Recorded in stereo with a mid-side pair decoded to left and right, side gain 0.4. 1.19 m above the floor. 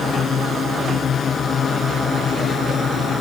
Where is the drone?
60° left.